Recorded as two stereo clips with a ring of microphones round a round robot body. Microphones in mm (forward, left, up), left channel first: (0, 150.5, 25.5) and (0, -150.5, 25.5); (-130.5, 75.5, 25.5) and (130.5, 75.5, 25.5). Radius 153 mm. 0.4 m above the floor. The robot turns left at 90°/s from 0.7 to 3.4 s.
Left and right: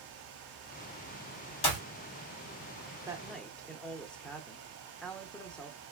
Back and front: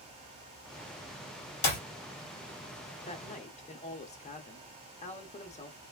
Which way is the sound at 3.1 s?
155° right.